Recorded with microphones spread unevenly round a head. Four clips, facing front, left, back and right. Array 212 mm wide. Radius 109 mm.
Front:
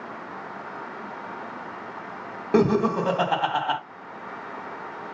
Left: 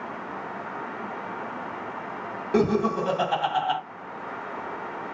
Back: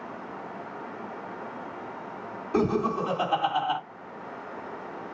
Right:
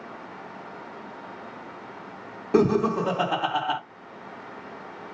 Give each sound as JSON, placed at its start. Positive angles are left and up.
{"t": 2.5, "sound": "laughter", "azimuth_deg": -10, "distance_m": 2.5}